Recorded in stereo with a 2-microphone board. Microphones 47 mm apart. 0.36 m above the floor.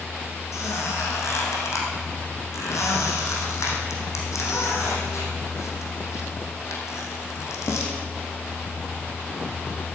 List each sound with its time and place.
0.5 s a squeak: 85° left, 4 m